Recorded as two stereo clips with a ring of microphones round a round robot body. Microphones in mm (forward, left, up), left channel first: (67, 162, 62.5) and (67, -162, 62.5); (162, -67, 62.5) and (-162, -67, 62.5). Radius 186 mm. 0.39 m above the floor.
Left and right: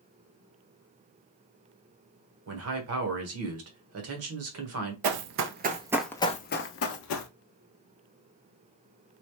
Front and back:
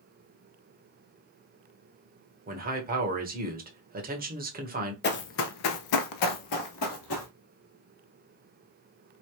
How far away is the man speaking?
About 1.3 m.